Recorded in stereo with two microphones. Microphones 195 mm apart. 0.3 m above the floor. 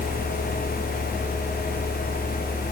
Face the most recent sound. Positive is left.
No sound to turn to.